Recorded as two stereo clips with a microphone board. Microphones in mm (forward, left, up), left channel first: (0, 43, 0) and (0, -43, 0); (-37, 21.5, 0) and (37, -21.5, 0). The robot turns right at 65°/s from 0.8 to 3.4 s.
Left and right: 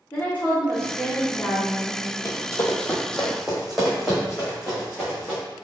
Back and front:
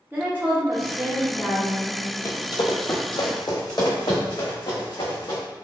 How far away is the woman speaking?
About 0.9 m.